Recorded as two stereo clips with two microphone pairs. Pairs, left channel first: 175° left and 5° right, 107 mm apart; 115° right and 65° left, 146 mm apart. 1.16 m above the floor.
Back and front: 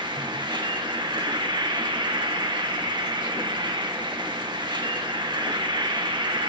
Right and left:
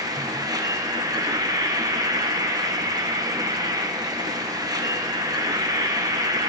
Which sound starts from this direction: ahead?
An insect, at 0.0 s.